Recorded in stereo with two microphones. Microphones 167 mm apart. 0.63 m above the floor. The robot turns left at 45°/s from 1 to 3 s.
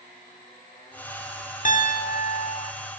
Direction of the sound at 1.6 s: 125° left.